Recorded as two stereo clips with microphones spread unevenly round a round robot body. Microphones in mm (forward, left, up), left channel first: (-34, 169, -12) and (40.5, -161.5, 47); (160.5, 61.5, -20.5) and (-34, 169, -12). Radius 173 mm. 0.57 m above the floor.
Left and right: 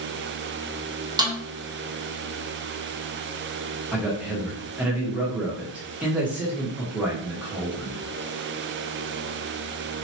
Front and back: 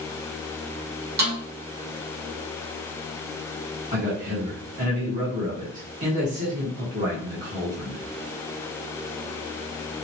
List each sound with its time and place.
1.2 s a snare drum: 160° right, 0.8 m
3.9 s a man speaking: 175° right, 1.2 m